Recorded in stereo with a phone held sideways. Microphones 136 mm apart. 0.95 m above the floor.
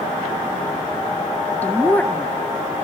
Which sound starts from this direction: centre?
A woman speaking, at 1.6 s.